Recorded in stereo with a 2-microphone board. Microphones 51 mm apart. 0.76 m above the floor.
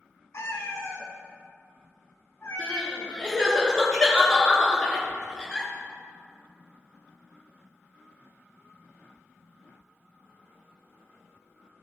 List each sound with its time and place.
0.3 s a cat meowing: 65° left (ahead or behind), 1.5 m
2.6 s crying: 15° left (ahead or behind), 2.5 m